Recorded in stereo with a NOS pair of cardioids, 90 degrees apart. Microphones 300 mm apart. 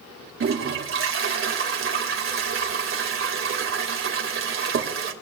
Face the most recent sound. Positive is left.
turn(degrees=-45)